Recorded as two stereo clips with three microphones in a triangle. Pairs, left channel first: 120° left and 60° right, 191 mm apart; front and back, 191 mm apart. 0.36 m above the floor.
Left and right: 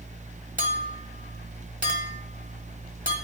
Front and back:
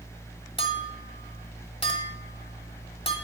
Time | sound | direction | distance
0.6 | a clink | 50° right | 1.1 m